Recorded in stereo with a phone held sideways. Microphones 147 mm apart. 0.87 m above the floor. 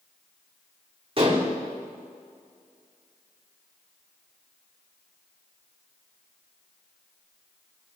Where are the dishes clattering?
40° right (ahead or behind), 1.6 m.